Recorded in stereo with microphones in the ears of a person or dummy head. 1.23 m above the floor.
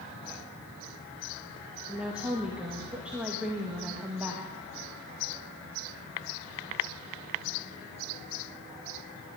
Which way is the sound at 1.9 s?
5° right (ahead or behind).